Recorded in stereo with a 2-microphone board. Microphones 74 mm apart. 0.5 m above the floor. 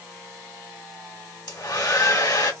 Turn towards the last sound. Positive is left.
turn(degrees=60)  # may be behind; listen again after turning